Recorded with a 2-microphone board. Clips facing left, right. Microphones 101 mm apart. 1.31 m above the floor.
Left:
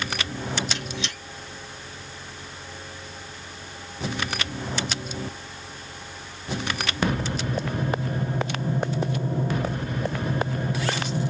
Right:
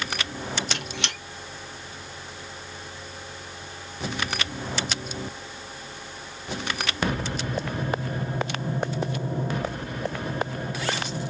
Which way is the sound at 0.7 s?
70° right (ahead or behind).